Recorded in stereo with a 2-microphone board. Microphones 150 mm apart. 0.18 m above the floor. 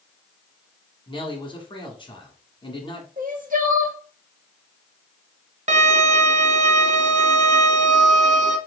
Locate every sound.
1.1 s a man speaking: 35° left (ahead or behind), 1.5 m
3.2 s crying: 65° right (ahead or behind), 0.9 m
5.7 s a violin: 50° right (ahead or behind), 0.7 m